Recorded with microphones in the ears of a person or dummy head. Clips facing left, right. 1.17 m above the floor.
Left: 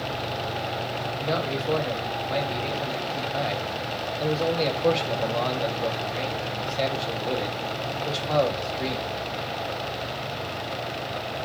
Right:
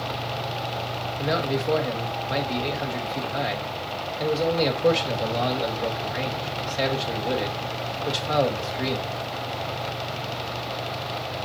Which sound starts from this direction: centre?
A man speaking, at 1.2 s.